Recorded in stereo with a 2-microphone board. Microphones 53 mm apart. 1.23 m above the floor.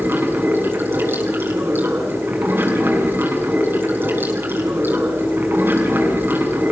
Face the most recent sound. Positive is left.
turn(degrees=-40)  # may be behind; listen again after turning